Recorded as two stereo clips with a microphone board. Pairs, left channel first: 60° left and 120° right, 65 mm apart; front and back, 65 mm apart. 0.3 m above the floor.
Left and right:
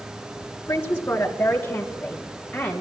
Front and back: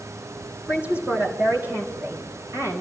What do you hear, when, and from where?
0.7 s a man speaking: 115° left, 4 m; by 2.8 s 145° left, 5.5 m